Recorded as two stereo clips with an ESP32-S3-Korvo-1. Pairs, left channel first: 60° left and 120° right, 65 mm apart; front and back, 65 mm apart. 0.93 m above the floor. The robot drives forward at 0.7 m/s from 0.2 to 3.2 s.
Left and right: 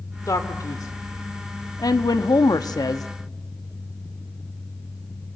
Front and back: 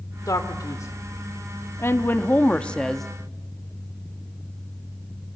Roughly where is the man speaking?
Ahead left.